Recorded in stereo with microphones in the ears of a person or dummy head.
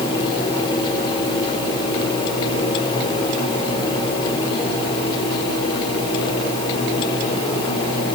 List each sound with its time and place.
Only background noise.